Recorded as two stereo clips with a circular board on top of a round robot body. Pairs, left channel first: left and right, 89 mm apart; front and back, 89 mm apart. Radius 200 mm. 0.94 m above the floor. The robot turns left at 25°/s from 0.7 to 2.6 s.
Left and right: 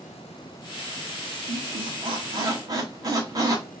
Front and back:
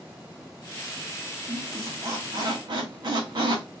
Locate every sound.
1.5 s a squeak: 110° right, 0.7 m; by 3.6 s 140° right, 0.7 m